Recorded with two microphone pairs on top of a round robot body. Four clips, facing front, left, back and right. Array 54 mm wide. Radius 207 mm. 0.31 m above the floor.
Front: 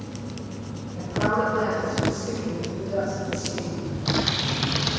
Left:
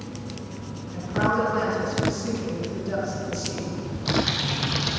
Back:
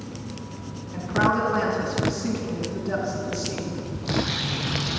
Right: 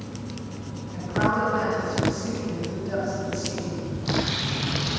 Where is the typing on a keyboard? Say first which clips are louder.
Left 2 dB, front 2 dB; 35° left, 3.5 m.